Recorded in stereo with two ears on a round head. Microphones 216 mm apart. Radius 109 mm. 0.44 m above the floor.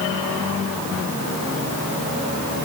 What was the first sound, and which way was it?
Only background noise.